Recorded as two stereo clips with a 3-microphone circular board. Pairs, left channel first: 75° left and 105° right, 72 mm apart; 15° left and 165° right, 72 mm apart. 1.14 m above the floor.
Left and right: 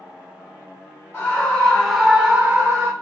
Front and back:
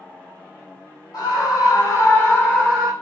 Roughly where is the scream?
Ahead.